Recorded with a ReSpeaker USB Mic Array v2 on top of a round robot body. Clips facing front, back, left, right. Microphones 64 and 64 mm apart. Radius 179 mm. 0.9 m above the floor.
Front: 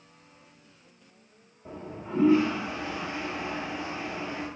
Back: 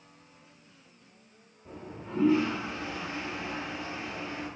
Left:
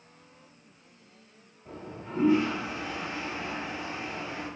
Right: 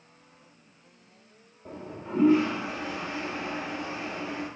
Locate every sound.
1.6 s a toilet flushing: 60° right, 0.5 m